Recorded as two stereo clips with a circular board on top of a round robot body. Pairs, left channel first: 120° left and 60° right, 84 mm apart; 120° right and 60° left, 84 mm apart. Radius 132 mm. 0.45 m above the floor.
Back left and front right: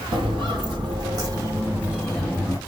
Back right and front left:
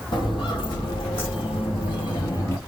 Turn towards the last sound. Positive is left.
turn(degrees=180)